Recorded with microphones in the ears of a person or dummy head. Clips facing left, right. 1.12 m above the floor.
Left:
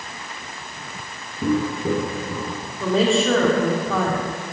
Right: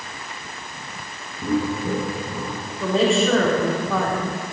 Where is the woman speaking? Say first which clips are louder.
Even; centre (ahead or behind), 3 m.